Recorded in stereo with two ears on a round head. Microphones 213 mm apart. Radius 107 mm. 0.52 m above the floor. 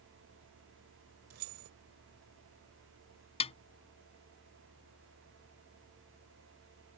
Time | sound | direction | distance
1.3 | keys jangling | 70° right (ahead or behind) | ?
3.4 | a snare drum | 25° left (ahead or behind) | ?